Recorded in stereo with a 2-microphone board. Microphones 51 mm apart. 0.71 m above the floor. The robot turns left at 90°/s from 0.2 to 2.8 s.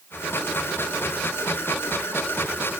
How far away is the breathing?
No breathing in this recording.